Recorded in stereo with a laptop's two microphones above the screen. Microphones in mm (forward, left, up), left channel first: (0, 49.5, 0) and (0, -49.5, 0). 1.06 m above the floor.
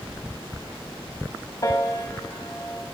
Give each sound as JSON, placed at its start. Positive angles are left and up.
{"t": 1.6, "sound": "a piano", "side_deg": 35, "distance_m": 2.5}